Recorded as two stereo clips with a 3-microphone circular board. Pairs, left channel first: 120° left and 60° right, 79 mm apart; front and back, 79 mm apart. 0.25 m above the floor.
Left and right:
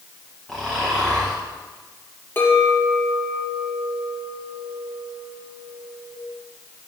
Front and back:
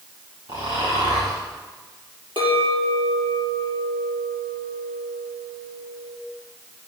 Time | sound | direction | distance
0.5 | snoring | 160° right | 6 m
2.4 | a clink | straight behind | 4.5 m